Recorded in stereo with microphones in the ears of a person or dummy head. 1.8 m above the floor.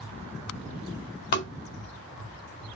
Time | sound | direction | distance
1.3 | tapping | 40° left (ahead or behind) | 0.6 m